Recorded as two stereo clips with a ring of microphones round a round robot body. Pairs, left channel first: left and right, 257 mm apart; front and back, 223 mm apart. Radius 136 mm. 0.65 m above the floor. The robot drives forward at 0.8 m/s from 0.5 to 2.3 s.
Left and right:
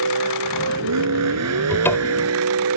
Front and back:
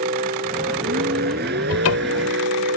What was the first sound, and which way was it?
A vehicle, 115° right.